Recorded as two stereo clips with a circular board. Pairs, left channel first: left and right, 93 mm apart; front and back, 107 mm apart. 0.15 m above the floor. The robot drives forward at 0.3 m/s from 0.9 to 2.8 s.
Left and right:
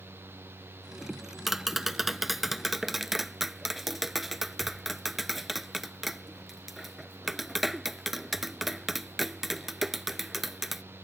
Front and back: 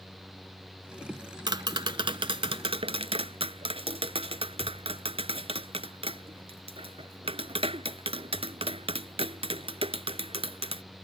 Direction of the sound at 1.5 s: 175° right.